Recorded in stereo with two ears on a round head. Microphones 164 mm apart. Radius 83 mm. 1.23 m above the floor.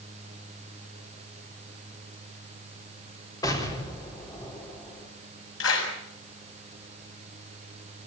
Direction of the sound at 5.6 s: 80° left.